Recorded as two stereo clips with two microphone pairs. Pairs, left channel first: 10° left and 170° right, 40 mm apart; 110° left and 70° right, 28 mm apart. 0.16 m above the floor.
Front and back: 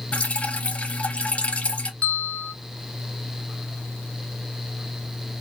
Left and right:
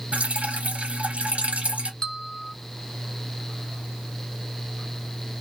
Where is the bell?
55° left, 0.9 m.